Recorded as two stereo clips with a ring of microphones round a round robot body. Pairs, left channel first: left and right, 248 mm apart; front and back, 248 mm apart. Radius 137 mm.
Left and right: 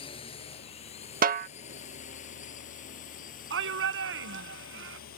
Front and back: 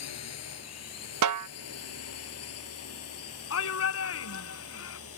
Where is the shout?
40° right.